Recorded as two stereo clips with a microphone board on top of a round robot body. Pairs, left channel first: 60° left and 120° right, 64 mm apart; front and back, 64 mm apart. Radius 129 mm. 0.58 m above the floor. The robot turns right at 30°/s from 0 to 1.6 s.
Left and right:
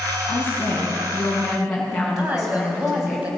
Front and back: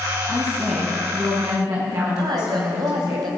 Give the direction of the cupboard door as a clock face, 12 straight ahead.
I don't hear a cupboard door.